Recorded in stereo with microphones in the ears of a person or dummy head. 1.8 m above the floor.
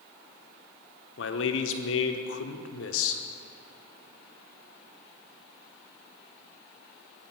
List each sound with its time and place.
1.2 s a man speaking: 80° left, 1.0 m